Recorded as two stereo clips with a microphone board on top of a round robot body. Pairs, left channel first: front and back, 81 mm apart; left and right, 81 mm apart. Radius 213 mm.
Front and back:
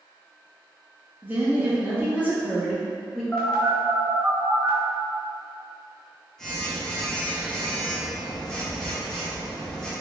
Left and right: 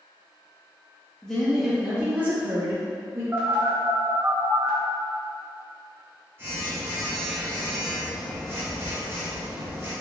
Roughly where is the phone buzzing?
Right.